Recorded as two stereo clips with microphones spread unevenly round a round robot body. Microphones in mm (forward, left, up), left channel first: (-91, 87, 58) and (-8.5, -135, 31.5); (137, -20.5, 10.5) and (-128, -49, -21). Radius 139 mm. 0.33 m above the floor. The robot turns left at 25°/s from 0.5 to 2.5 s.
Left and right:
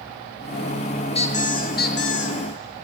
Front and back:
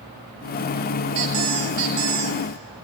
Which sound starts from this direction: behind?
A squeak, at 1.1 s.